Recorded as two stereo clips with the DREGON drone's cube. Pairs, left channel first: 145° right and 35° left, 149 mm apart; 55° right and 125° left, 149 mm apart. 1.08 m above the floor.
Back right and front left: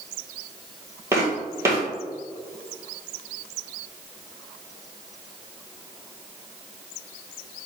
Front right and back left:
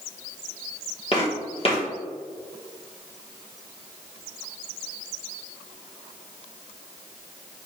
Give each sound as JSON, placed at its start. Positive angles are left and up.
{"t": 1.1, "sound": "footsteps", "azimuth_deg": -30, "distance_m": 1.5}